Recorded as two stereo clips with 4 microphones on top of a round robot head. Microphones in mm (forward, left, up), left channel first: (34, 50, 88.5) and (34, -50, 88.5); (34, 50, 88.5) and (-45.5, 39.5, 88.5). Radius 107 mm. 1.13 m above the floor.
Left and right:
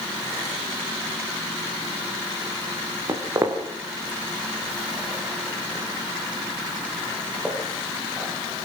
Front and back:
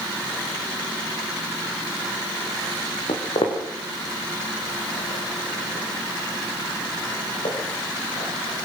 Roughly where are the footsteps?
Ahead right.